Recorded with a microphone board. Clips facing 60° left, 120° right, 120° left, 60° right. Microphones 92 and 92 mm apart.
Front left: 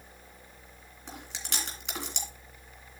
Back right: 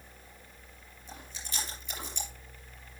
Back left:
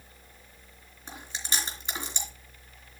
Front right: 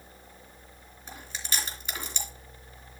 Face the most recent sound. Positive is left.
turn(degrees=45)